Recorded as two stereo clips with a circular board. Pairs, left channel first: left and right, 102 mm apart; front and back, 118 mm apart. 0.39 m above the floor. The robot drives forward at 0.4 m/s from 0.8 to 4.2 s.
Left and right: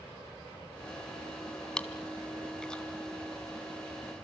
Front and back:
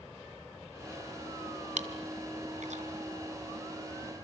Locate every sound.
1.8 s chewing: 175° left, 1.9 m